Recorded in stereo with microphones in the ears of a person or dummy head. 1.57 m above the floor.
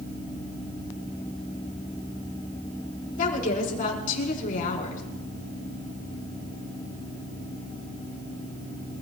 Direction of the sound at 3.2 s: 45° left (ahead or behind).